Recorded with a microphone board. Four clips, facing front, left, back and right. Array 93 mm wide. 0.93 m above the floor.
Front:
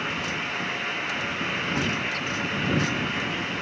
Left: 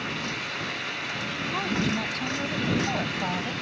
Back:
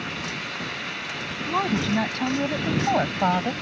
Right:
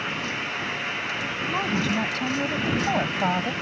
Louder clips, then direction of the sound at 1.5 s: Right 2 dB, back 8 dB; 170° right.